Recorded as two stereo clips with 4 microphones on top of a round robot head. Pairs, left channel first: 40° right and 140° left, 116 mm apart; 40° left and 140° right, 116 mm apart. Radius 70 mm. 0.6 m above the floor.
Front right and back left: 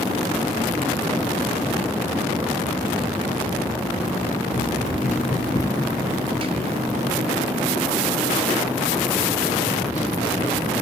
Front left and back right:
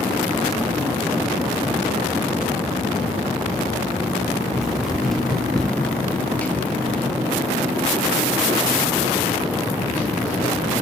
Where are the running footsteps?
50° right, 1.2 m; by 10.7 s 125° left, 4 m.